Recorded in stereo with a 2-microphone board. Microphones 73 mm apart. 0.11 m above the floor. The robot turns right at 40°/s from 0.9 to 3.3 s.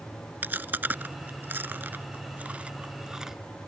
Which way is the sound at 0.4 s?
25° right (ahead or behind).